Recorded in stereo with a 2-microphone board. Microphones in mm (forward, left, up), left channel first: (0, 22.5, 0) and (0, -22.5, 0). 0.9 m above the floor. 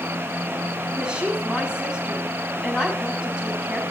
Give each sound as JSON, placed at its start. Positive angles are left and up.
{"t": 0.9, "sound": "a woman speaking", "side_deg": -20, "distance_m": 6.0}